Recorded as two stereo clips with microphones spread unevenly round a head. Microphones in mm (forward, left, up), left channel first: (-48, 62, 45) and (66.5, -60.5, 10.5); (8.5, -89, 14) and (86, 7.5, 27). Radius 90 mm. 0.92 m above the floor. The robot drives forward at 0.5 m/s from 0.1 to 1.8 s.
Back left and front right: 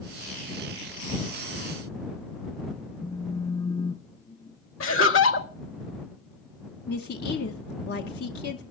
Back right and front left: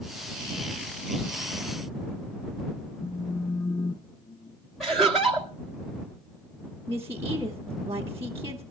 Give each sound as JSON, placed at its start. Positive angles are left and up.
{"t": 3.0, "sound": "a phone buzzing", "azimuth_deg": -160, "distance_m": 0.8}
{"t": 4.8, "sound": "laughter", "azimuth_deg": 145, "distance_m": 1.5}
{"t": 6.9, "sound": "a woman speaking", "azimuth_deg": 125, "distance_m": 1.1}